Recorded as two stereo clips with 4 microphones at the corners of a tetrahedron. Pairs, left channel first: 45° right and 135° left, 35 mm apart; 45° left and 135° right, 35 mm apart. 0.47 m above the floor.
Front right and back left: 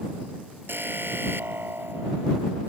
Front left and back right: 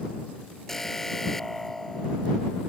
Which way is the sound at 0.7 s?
125° left.